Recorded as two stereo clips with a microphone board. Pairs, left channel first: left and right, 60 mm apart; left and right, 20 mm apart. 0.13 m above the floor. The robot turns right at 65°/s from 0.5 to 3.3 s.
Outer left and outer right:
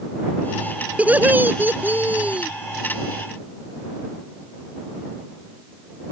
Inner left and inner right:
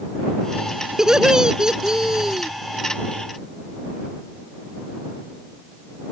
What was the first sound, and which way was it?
Laughter, 135° right.